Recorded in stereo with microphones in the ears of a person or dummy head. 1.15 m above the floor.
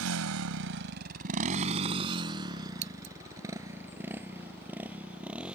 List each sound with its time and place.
0.0 s a motorcycle: 75° right (ahead or behind); by 5.6 s 5° right (ahead or behind)
2.8 s scissors: 35° right (ahead or behind)